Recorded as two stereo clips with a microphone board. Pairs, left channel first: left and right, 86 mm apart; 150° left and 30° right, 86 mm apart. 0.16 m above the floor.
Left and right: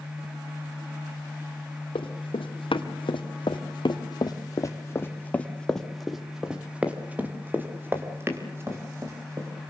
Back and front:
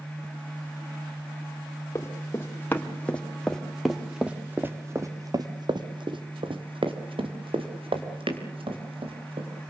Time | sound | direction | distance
1.9 | running footsteps | 90° left | 3.5 m